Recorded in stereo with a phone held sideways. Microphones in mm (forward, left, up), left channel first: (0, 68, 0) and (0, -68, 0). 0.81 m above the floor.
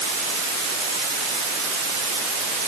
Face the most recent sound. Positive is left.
No sound to turn to.